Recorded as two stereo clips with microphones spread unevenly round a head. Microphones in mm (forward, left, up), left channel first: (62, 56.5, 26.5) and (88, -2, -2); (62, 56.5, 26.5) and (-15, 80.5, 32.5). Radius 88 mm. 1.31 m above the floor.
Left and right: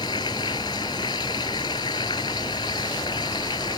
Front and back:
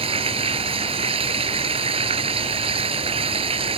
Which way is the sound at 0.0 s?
165° left.